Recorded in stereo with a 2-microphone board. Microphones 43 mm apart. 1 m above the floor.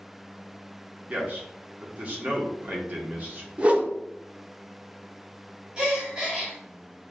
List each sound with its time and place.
1.1 s a man speaking: 35° right (ahead or behind), 1.0 m
3.6 s a whoosh: 25° right (ahead or behind), 0.5 m
5.8 s a gasp: 20° right (ahead or behind), 1.1 m